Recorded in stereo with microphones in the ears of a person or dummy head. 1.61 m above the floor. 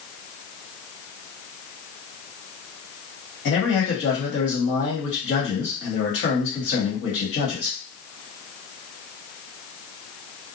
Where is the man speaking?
60° left (ahead or behind), 1.6 m.